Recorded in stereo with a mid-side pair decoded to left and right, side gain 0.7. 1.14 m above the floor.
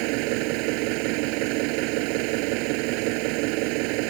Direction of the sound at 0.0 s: 70° right.